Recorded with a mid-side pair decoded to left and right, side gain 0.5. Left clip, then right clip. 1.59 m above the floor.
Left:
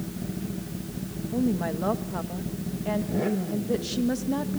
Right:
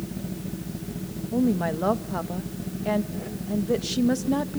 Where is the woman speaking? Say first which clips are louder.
Right 3 dB; 25° right, 1.9 m.